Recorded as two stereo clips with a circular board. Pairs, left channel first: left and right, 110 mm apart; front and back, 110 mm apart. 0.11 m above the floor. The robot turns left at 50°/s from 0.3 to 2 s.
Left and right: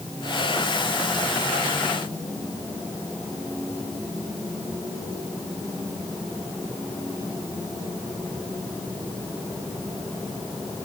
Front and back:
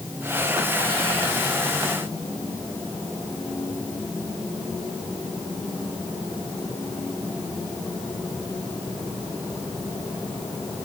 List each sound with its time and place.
Only background noise.